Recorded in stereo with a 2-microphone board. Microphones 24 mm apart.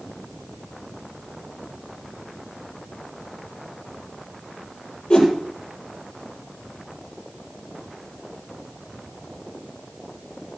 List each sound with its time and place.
5.1 s a whoosh: 45° left (ahead or behind), 5.5 m